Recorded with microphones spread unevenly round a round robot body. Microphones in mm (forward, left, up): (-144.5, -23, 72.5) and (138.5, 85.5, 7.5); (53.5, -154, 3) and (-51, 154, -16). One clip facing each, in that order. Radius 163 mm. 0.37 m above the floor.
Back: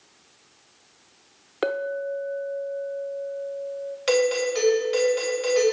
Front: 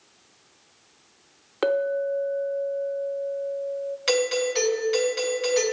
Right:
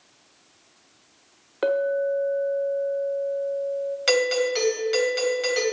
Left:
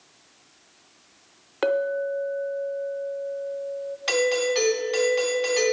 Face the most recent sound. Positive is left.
turn(degrees=-50)